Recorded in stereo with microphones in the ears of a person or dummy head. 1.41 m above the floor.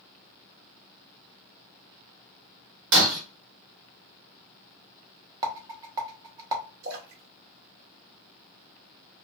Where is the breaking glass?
60° right (ahead or behind), 0.9 m.